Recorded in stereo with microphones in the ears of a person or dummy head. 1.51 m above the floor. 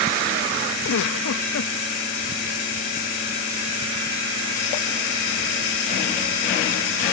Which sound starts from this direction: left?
A giggle, at 0.8 s.